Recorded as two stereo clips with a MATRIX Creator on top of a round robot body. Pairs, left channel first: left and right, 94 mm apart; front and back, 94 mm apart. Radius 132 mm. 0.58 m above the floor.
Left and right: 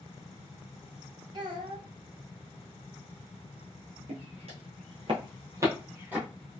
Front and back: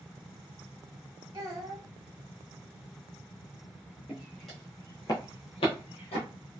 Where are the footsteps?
100° right, 1.1 m; by 6.2 s 15° right, 1.4 m.